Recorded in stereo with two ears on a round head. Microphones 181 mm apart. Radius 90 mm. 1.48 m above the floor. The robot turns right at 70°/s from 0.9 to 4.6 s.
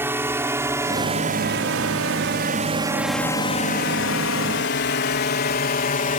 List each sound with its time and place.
0.0 s a drone: 10° right (ahead or behind); by 6.2 s 40° left (ahead or behind)